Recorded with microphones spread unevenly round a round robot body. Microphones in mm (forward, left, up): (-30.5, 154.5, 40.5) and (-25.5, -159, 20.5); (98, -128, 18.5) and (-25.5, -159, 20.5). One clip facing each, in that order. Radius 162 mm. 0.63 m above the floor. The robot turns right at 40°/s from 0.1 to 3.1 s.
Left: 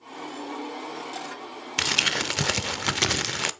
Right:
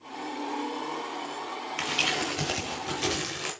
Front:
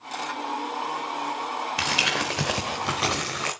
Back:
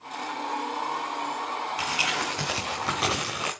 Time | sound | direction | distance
1.8 | crumpling | 55° left | 0.8 m